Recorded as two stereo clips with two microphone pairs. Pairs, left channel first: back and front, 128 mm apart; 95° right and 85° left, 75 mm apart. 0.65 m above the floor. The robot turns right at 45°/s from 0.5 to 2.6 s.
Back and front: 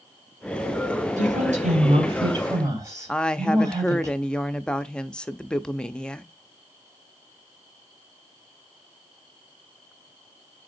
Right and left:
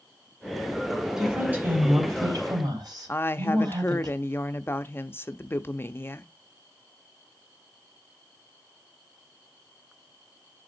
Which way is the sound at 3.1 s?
110° right.